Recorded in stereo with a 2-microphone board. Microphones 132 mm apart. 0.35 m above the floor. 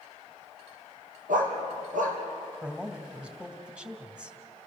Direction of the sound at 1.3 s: 80° right.